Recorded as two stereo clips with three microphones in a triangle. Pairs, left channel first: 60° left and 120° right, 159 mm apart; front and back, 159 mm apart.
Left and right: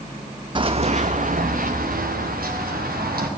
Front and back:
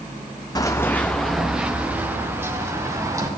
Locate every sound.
0.6 s running footsteps: 60° right, 0.5 m; by 3.3 s 110° right, 1.8 m